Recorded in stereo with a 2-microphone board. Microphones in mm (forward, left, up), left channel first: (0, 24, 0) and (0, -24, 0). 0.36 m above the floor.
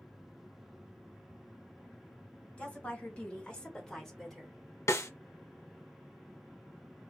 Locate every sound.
2.6 s a woman speaking: 30° left (ahead or behind), 1.7 m; by 4.6 s centre (ahead or behind), 1.2 m
4.9 s a snare drum: 85° left, 0.7 m